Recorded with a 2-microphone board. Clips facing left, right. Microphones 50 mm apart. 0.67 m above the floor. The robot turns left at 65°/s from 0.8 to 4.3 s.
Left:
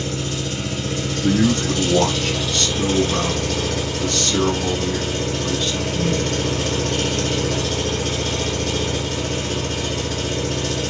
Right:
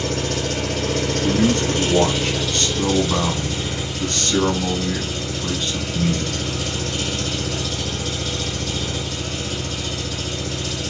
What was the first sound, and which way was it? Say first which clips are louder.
An engine running: right 2 dB; 75° right.